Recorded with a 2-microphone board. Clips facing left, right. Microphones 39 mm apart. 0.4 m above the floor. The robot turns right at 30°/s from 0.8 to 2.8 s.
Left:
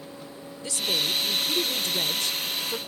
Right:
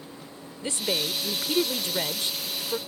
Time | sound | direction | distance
0.6 | a woman speaking | 95° right | ?